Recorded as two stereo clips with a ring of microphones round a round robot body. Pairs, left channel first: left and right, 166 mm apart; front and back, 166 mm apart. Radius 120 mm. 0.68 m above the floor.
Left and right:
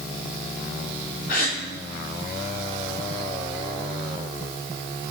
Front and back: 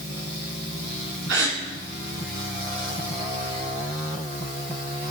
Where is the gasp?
145° left, 2.5 m.